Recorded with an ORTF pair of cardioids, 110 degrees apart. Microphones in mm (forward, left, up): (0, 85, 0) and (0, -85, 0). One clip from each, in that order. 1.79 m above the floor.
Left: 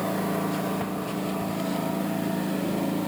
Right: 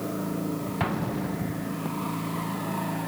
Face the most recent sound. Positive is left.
turn(degrees=-50)